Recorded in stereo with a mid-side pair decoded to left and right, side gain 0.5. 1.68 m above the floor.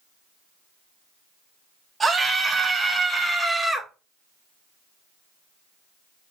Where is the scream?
20° right, 3.5 m; by 3.9 s 5° left, 2.5 m.